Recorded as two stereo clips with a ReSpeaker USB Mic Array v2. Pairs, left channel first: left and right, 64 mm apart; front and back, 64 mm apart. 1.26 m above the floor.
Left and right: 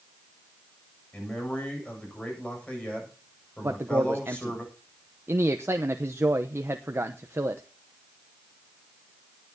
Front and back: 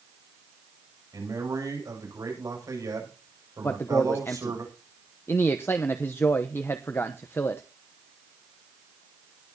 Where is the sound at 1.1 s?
160° left, 7.5 m.